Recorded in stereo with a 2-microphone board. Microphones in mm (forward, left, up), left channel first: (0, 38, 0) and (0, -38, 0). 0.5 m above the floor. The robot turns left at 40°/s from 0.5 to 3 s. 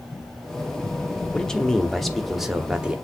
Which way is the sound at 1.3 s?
10° left (ahead or behind).